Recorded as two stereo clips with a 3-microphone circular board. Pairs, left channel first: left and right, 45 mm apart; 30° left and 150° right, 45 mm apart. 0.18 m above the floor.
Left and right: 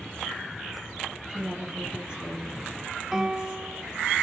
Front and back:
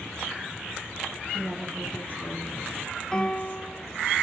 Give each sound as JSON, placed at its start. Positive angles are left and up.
{"t": 1.3, "sound": "a woman speaking", "azimuth_deg": -20, "distance_m": 4.5}
{"t": 3.1, "sound": "a piano", "azimuth_deg": -20, "distance_m": 0.6}